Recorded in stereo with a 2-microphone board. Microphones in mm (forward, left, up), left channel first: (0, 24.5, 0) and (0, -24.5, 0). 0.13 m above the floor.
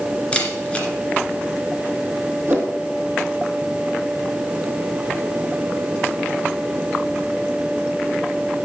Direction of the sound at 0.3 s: 20° left (ahead or behind).